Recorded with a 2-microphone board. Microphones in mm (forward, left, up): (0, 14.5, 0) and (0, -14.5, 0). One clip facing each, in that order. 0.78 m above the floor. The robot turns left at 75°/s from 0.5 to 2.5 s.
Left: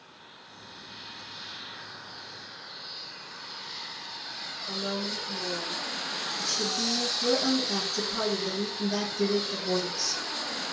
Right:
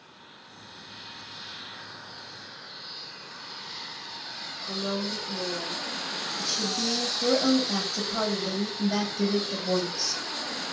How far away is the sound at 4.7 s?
About 1.2 m.